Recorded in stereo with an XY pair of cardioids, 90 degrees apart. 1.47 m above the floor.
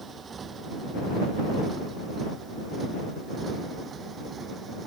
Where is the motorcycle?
45° right; by 4.9 s 50° right.